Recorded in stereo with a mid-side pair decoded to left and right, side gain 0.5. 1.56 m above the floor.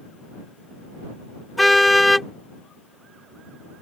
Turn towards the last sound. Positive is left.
turn(degrees=10)